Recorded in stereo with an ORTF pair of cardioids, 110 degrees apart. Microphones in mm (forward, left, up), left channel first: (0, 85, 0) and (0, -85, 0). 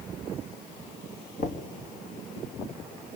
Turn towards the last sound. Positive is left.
turn(degrees=55)